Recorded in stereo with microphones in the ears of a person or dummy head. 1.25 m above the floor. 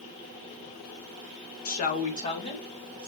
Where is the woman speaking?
45° left (ahead or behind), 0.7 m; by 3.1 s 25° left (ahead or behind), 1.8 m.